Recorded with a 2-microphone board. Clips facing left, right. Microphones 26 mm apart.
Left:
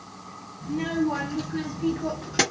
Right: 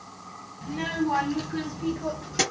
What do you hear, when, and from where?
0.6 s a child speaking: 35° right (ahead or behind), 1.4 m; by 2.4 s 25° left (ahead or behind), 1.4 m